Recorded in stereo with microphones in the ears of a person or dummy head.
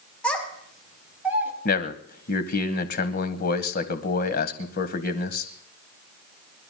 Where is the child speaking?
Centre (ahead or behind), 4.5 m; by 1.5 s 20° right (ahead or behind), 4 m.